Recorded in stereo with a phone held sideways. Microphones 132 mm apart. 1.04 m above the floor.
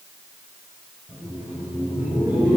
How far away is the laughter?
About 4.5 m.